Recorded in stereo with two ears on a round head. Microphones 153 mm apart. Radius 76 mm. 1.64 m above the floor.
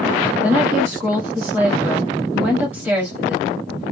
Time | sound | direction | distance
0.4 | a woman speaking | 10° right (ahead or behind) | 1.0 m